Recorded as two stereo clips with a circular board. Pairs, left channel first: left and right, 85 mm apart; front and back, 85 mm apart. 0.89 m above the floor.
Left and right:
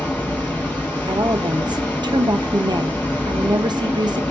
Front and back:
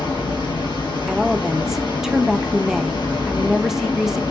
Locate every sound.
0.0 s running water: 20° left, 2.5 m
1.1 s a woman speaking: 95° right, 0.5 m